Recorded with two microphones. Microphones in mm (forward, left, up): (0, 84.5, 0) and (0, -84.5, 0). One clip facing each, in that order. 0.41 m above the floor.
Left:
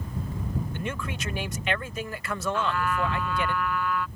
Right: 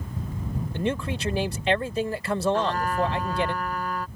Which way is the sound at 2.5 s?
45° right (ahead or behind).